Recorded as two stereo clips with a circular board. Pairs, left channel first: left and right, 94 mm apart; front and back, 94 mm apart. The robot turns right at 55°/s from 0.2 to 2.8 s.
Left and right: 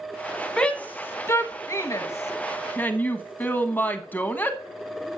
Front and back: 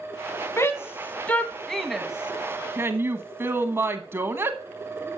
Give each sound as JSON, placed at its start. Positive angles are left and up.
{"t": 0.6, "sound": "a shout", "azimuth_deg": 20, "distance_m": 1.1}